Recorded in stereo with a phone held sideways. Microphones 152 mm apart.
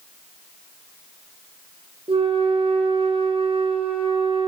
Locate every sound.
2.1 s a flute: 35° right (ahead or behind), 0.5 m